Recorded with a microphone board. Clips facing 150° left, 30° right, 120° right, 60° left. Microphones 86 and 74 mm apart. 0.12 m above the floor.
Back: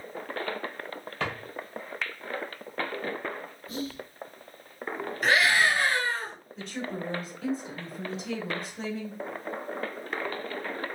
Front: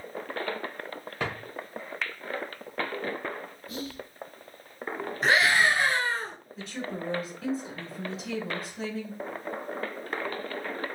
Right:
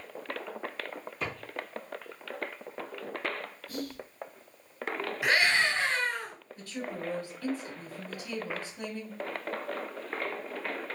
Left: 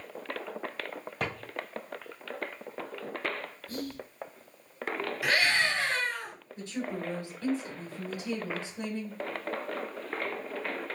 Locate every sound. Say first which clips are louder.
1.2 s a drawer: even, left 2 dB; 45° left, 1.6 m
3.7 s whispering: back 3 dB, left 1 dB; 60° left, 1.2 m
5.2 s a scream: front 1 dB, right 1 dB; 70° right, 1.9 m
6.6 s a woman speaking: back 1 dB, left 3 dB; 60° left, 1.2 m